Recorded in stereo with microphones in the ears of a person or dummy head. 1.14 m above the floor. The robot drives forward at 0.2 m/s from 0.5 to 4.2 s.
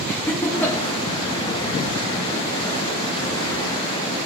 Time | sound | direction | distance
0.1 | laughter | 15° left (ahead or behind) | 1.5 m